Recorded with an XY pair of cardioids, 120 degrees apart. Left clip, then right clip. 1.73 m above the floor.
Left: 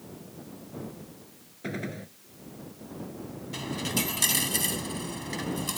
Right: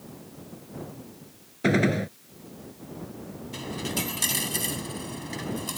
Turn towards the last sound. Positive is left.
turn(degrees=10)